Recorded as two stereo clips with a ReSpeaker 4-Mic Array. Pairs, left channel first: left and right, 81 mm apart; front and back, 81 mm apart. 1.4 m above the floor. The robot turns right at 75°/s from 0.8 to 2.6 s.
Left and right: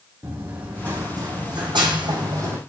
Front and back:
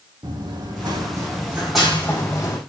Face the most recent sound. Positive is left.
turn(degrees=-30)